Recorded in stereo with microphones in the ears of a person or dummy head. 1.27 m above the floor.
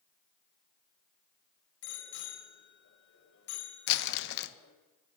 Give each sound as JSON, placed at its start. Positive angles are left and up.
{"t": 1.8, "sound": "a bicycle bell", "side_deg": 85, "distance_m": 4.5}
{"t": 3.9, "sound": "crumpling", "side_deg": 60, "distance_m": 1.2}